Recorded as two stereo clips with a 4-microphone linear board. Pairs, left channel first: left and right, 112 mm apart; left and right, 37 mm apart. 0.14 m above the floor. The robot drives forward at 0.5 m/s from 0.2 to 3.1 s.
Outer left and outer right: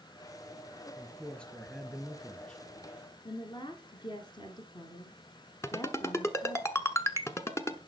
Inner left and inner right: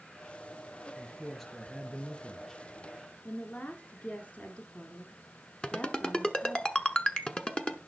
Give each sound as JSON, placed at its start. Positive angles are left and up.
{"t": 1.0, "sound": "a man speaking", "side_deg": 5, "distance_m": 2.5}
{"t": 3.2, "sound": "a woman speaking", "side_deg": 45, "distance_m": 1.5}
{"t": 5.6, "sound": "a ringtone", "side_deg": 25, "distance_m": 0.9}